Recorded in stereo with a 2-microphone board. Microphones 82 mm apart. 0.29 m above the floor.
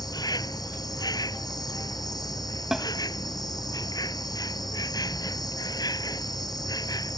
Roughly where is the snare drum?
Centre.